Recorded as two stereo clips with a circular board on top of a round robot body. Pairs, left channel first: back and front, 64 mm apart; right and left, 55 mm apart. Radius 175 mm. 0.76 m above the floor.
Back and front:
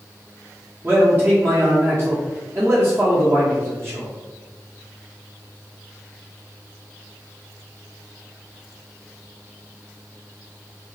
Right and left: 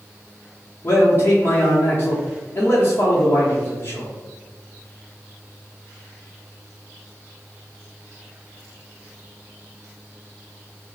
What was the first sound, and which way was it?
A man speaking, 45° right.